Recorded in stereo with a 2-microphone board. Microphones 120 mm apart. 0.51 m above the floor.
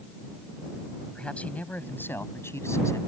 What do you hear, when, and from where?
1.1 s a man speaking: 10° left (ahead or behind); by 3.0 s 25° left (ahead or behind)